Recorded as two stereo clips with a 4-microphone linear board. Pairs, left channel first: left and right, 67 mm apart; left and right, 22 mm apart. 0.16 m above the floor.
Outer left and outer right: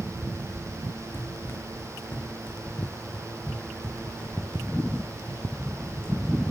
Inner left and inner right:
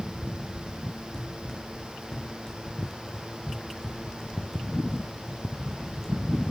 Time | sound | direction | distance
1.1 | running footsteps | 35° left (ahead or behind) | 2.5 m